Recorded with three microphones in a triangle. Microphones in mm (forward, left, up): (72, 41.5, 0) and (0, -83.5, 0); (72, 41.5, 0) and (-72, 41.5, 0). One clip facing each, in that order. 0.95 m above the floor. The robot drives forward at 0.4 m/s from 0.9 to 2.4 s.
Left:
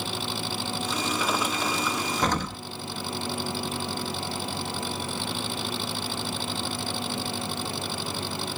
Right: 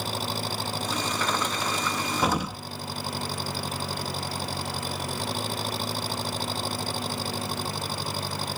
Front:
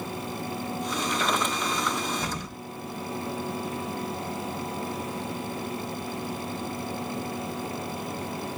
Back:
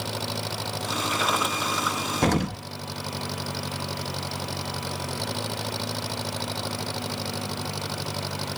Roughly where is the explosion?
Behind.